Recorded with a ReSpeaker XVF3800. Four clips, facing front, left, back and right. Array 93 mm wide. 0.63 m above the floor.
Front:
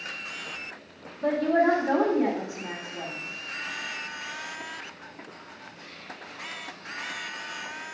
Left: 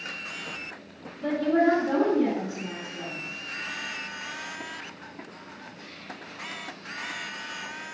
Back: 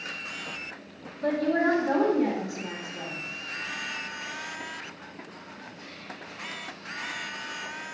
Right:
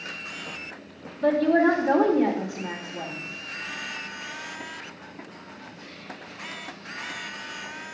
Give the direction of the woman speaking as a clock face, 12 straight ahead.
3 o'clock.